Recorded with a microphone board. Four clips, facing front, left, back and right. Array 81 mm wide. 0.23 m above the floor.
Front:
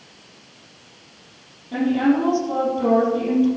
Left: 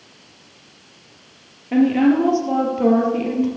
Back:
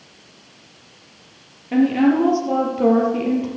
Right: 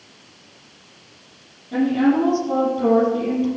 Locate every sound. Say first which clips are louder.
1.7 s a woman speaking: left 3 dB, back 3 dB; 125° left, 5 m; by 3.5 s 140° left, 5.5 m